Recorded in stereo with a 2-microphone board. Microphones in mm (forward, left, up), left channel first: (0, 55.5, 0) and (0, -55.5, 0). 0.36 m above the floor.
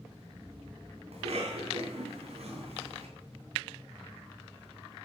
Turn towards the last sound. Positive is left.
turn(degrees=-70)  # may be behind; listen again after turning